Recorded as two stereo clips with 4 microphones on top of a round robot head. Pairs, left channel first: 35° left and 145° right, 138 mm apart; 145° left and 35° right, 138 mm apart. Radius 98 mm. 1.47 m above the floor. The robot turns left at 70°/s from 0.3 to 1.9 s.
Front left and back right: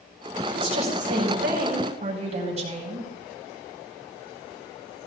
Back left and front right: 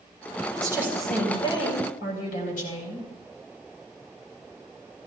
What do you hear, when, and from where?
0.5 s a woman speaking: 90° right, 4.5 m; by 3.1 s 175° left, 4.5 m